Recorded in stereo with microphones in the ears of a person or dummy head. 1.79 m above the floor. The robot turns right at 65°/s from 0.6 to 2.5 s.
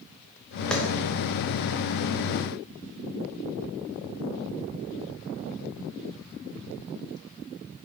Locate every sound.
0.7 s a clap: 5° left (ahead or behind), 0.9 m; by 0.8 s centre (ahead or behind), 0.9 m